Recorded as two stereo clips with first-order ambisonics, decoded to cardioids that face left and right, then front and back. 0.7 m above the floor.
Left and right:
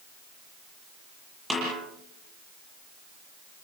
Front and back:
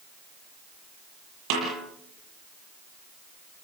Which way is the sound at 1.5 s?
Straight behind.